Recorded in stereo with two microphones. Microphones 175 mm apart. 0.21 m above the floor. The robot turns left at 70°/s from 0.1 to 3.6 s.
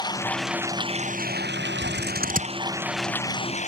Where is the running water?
25° left; by 3.7 s 140° left.